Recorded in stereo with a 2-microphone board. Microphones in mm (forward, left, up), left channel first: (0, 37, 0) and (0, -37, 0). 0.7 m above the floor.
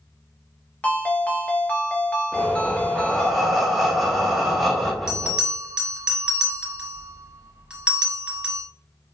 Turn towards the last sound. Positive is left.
turn(degrees=-10)  # may be behind; listen again after turning